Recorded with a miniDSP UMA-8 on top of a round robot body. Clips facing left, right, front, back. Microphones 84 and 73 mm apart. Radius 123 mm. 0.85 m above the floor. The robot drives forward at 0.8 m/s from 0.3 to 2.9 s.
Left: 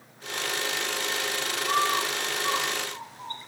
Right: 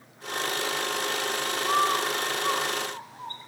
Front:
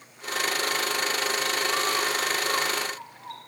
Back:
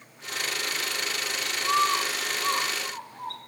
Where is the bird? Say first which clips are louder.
Right 1 dB, back 7 dB; 140° right, 6.5 m; by 3.4 s 145° right, 7.5 m.